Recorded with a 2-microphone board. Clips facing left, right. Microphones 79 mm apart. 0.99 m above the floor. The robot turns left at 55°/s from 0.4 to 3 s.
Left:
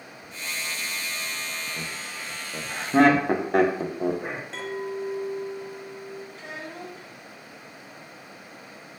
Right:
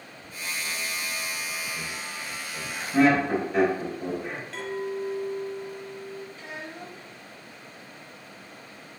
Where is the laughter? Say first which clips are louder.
Even; 45° left (ahead or behind), 0.6 m; by 4.4 s 65° left (ahead or behind), 0.6 m.